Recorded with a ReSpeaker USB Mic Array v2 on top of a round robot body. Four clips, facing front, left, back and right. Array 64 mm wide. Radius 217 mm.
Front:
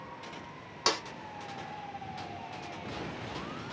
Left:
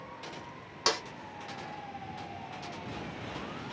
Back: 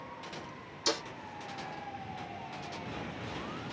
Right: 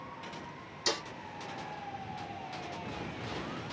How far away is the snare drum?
About 0.6 m.